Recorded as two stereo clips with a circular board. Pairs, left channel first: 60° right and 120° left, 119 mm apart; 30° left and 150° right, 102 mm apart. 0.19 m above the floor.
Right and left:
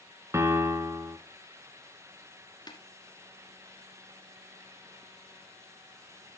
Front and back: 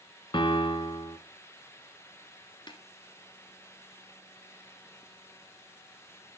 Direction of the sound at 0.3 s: 55° left.